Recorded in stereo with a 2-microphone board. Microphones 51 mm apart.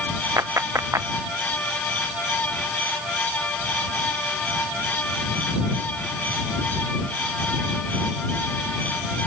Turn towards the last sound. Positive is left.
turn(degrees=-70)  # may be behind; listen again after turning